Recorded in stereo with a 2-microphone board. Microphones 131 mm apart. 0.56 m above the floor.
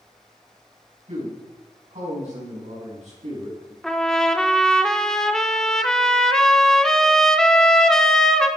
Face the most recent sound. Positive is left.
turn(degrees=5)  # may be behind; listen again after turning